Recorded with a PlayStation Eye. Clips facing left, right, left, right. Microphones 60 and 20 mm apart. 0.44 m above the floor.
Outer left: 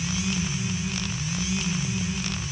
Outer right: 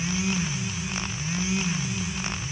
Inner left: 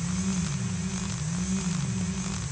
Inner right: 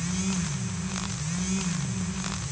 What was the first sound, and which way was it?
Only background noise.